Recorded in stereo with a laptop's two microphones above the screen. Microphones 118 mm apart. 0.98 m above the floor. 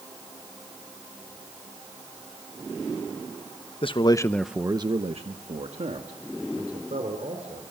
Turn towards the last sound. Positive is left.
turn(degrees=-80)